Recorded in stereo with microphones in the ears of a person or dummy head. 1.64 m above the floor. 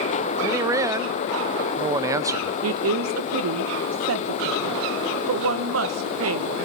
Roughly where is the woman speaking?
Right.